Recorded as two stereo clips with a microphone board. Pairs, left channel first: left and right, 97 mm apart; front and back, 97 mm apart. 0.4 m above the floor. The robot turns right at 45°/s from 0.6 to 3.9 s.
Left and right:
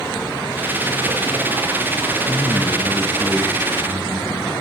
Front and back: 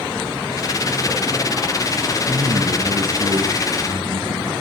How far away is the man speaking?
About 4.5 m.